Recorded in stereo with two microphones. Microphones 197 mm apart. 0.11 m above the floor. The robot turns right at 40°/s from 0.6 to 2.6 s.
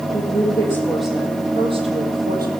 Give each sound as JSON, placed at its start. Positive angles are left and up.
{"t": 0.1, "sound": "a woman speaking", "azimuth_deg": 165, "distance_m": 3.5}